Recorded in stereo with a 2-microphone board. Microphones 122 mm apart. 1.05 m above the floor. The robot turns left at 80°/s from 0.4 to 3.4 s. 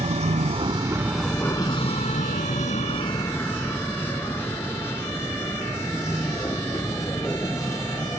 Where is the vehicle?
60° right (ahead or behind); by 8.2 s 25° left (ahead or behind).